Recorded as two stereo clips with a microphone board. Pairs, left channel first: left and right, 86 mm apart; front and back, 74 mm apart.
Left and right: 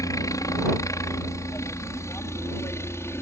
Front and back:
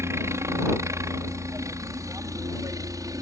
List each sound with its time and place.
0.0 s a helicopter: 135° left; by 3.2 s 145° left